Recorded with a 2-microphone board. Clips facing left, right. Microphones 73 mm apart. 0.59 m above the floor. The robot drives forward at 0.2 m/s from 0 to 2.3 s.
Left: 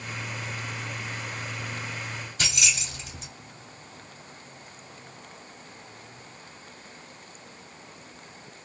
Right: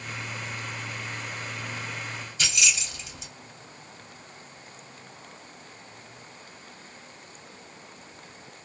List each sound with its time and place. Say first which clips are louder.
2.4 s keys jangling: right 1 dB; 50° left (ahead or behind), 1.0 m